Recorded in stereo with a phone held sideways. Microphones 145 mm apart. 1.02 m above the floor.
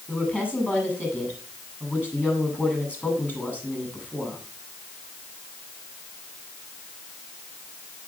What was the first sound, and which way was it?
A woman speaking, 10° left (ahead or behind).